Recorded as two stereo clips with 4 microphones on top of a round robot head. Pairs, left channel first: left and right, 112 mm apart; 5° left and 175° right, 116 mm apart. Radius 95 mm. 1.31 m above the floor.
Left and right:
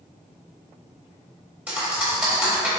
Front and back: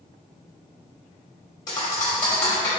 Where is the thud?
30° right, 0.9 m.